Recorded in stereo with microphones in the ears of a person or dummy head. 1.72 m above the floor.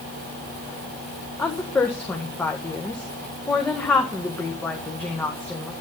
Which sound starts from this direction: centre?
A woman speaking, at 1.4 s.